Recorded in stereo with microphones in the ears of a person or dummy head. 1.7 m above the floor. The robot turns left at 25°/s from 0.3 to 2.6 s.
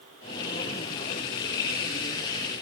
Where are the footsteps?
I don't hear footsteps.